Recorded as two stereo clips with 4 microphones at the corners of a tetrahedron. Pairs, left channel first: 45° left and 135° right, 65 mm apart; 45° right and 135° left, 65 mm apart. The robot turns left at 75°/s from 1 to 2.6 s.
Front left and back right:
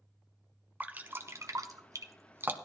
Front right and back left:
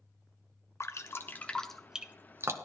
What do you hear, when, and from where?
0.8 s dripping: 75° right, 0.9 m; by 2.6 s 170° left, 0.9 m